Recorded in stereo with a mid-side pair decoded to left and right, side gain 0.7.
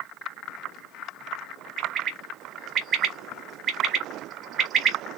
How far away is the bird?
About 1.3 m.